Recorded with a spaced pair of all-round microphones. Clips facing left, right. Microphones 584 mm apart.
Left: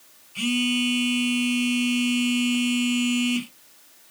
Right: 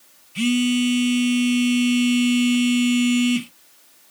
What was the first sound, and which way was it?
A phone buzzing, 45° right (ahead or behind).